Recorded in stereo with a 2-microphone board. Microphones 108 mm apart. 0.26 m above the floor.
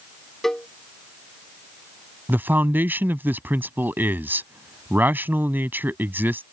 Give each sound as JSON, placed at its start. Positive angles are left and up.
{"t": 0.4, "sound": "a cowbell", "side_deg": 5}
{"t": 2.3, "sound": "a man speaking", "side_deg": -20}